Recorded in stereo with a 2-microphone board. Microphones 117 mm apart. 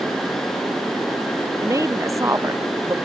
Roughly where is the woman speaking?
Right.